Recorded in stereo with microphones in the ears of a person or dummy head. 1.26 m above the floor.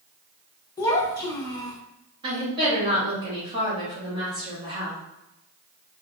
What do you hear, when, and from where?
0.8 s a child speaking: 20° left (ahead or behind), 0.7 m
2.2 s a woman speaking: 25° right (ahead or behind), 1.1 m